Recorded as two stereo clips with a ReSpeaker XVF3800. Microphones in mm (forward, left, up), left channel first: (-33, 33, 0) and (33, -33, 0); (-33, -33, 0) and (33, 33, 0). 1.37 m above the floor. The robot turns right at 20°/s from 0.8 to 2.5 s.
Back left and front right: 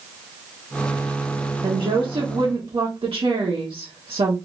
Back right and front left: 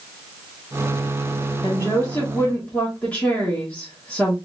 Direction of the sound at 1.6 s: 75° right.